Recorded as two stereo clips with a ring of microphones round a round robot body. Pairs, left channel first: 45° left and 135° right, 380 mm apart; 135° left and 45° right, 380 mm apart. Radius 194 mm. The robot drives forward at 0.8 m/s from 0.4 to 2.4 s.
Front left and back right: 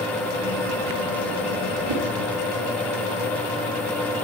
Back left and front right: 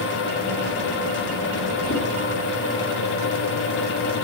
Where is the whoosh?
160° right, 2 m.